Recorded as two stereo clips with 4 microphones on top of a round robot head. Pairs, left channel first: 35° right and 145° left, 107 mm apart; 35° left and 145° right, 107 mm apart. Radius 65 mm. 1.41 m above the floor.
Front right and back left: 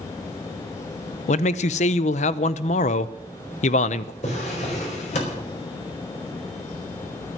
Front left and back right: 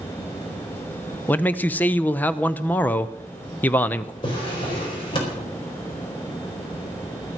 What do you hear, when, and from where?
1.3 s a man speaking: 35° right, 0.6 m
4.2 s a drawer: 10° right, 4.5 m